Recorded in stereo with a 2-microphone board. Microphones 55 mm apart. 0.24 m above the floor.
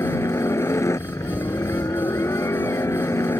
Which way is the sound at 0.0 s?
70° left (ahead or behind).